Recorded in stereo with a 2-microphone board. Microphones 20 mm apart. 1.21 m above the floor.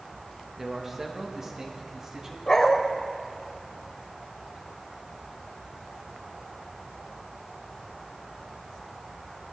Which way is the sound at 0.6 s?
15° right (ahead or behind).